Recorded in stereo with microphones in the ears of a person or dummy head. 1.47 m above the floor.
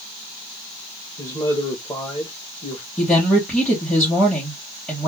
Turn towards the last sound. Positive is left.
turn(degrees=5)  # may be behind; listen again after turning